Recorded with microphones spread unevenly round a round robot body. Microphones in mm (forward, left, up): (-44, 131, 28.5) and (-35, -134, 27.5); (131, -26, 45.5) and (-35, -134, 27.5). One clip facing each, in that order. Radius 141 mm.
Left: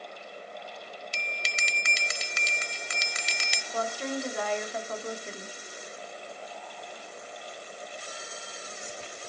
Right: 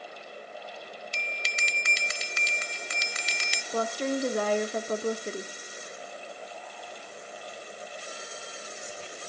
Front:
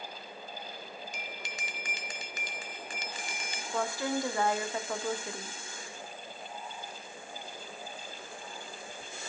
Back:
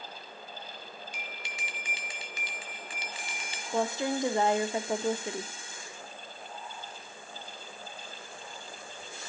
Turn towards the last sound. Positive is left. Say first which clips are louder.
# right 4 dB, back 3 dB
turn(degrees=-100)